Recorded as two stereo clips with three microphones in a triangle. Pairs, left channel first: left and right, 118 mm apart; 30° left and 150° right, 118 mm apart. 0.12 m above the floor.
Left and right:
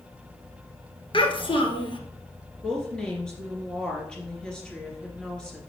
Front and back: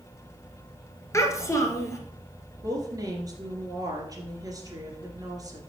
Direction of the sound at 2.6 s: 170° left.